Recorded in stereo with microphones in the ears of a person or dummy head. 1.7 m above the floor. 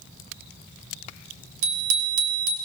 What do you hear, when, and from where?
1.6 s a bicycle bell: 75° right (ahead or behind), 3.5 m